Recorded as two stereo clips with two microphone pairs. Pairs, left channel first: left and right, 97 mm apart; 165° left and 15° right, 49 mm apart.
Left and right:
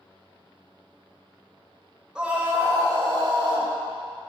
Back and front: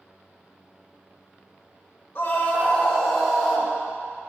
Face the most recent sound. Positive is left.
turn(degrees=-100)